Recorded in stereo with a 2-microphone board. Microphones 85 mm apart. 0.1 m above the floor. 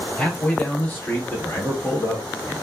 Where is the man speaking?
15° left (ahead or behind), 1.7 m; by 2.5 s 40° left (ahead or behind), 1.3 m.